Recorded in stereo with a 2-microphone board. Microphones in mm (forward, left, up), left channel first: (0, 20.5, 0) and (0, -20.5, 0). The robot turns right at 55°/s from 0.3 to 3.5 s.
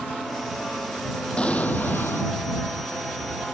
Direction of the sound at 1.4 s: 25° left.